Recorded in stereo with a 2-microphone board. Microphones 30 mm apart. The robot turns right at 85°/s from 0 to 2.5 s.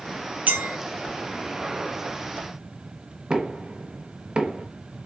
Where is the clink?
60° right (ahead or behind), 1.0 m; by 0.8 s 85° right, 1.0 m.